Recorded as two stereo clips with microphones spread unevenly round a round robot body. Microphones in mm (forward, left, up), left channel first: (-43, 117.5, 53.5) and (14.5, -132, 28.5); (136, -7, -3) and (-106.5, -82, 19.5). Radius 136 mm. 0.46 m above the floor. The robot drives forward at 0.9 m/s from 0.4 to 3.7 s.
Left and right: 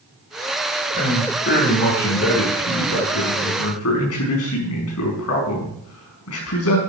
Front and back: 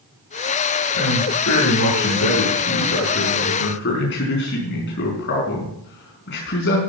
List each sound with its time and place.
0.9 s a man speaking: 45° left, 6.5 m; by 6.8 s 70° left, 5.5 m